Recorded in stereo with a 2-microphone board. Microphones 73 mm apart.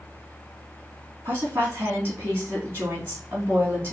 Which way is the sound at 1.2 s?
35° right (ahead or behind).